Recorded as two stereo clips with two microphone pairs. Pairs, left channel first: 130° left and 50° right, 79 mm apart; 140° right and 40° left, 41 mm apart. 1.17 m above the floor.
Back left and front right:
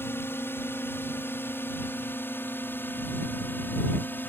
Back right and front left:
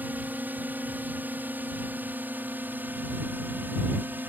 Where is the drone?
75° left; by 4.3 s 70° left.